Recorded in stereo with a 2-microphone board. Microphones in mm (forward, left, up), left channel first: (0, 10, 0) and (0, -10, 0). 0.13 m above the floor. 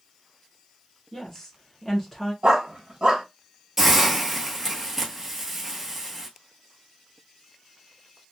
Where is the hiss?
10° right (ahead or behind), 1.1 m.